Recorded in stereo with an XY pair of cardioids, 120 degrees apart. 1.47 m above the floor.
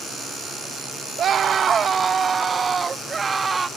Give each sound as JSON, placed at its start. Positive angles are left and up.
{"t": 1.2, "sound": "a scream", "azimuth_deg": -45}